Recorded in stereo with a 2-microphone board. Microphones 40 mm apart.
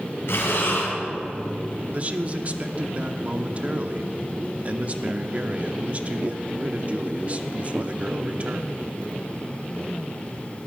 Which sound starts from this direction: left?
Breathing, at 0.3 s.